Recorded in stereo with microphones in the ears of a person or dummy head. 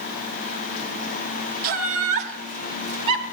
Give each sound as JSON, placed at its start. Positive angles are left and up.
{"t": 1.6, "sound": "laughter", "side_deg": -50, "distance_m": 1.5}